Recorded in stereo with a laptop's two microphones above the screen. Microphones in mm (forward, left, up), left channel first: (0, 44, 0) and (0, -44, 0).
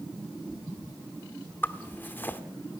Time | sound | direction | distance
1.6 | a zipper | 25° left (ahead or behind) | 1.1 m